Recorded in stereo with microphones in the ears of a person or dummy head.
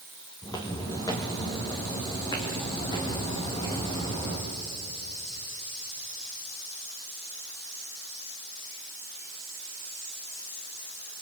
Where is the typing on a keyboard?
No typing on a keyboard in this recording.